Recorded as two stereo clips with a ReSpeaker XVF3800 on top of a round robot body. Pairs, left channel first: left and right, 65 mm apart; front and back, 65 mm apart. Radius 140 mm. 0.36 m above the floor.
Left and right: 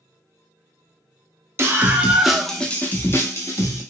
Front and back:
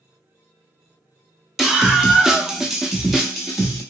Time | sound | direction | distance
1.6 | a scream | 105° right | 1.0 m